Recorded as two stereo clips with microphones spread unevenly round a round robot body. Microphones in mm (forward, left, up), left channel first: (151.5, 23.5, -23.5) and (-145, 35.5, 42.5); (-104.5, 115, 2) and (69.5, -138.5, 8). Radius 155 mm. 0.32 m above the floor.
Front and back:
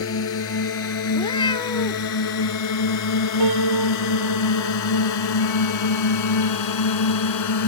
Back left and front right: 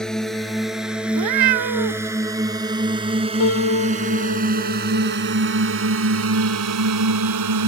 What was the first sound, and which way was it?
A drone, 35° left.